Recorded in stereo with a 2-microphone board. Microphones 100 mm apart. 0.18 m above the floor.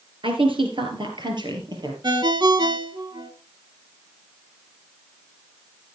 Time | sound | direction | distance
0.2 | a woman speaking | 60° right (ahead or behind) | 3 m
2.0 | a ringtone | 45° right (ahead or behind) | 1.2 m